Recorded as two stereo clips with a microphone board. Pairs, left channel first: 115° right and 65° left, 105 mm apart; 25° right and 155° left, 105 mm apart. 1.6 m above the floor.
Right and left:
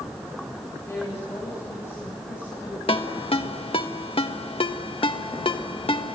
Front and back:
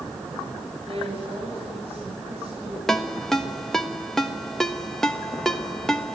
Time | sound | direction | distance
0.8 | a woman speaking | 175° right | 8 m
2.9 | a ringtone | 105° right | 1.3 m